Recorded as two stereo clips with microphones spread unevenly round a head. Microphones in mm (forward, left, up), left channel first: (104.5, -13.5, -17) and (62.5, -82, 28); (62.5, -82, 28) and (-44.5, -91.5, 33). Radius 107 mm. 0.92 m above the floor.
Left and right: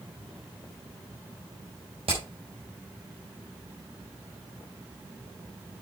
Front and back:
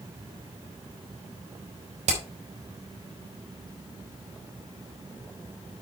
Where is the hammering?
175° left, 4 m.